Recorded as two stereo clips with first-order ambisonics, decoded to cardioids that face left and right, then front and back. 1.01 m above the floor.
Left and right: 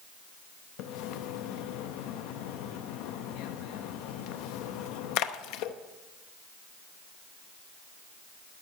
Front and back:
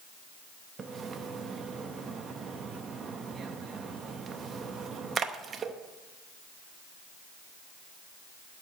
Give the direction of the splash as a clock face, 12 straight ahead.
8 o'clock.